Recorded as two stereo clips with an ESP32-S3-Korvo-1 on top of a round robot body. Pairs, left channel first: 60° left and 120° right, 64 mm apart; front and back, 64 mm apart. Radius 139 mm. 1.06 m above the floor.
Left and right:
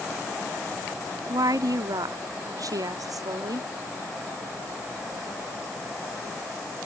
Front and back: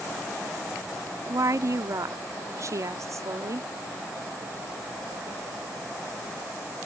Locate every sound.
1.3 s a woman speaking: 140° right